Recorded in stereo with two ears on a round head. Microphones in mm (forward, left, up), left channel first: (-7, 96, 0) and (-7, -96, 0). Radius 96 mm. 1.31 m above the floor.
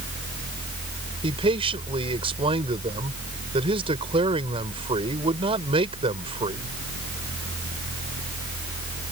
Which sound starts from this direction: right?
A man speaking, at 1.2 s.